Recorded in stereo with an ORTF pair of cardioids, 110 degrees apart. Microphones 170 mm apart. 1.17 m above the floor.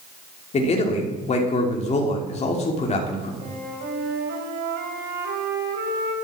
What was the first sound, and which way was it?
A man speaking, 40° left.